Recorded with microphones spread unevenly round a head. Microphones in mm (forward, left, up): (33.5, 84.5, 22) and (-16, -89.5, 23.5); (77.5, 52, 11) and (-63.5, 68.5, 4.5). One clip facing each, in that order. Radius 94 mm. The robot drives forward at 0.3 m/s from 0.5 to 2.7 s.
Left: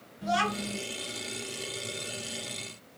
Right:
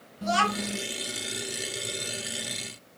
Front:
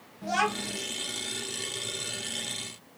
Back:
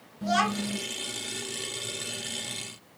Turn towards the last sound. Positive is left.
turn(degrees=-150)